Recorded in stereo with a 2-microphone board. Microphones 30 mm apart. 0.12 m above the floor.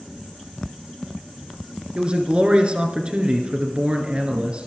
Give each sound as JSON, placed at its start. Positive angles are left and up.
{"t": 1.9, "sound": "a man speaking", "side_deg": -35, "distance_m": 2.0}